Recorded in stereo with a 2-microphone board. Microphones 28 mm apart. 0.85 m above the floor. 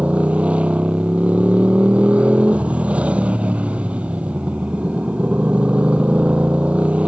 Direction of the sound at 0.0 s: 50° right (ahead or behind).